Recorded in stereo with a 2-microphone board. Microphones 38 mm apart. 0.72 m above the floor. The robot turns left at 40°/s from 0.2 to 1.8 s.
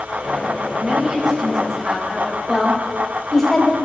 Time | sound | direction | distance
0.8 | a woman speaking | 140° right | 3.5 m
2.5 | a woman speaking | 10° left (ahead or behind) | 3.5 m